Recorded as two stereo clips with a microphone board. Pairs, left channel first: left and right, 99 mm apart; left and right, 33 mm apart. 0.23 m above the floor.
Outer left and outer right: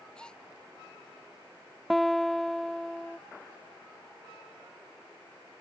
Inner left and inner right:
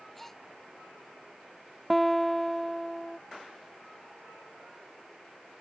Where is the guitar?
Centre (ahead or behind).